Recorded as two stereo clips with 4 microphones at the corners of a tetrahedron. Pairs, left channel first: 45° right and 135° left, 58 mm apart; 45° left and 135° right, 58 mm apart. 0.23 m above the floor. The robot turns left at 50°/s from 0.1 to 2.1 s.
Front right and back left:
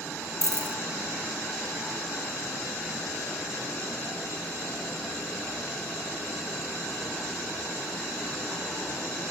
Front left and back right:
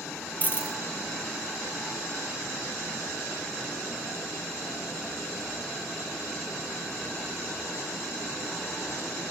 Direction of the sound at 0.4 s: 100° left.